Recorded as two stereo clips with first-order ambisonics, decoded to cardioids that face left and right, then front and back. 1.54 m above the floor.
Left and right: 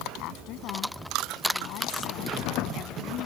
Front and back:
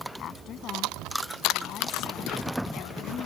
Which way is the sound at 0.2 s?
55° left.